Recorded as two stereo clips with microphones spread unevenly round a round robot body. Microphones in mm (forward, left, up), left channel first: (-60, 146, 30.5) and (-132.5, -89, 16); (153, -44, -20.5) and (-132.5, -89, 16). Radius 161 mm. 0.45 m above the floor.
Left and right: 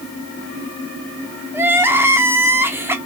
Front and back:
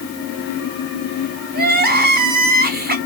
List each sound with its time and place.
1.5 s crying: 165° right, 1.0 m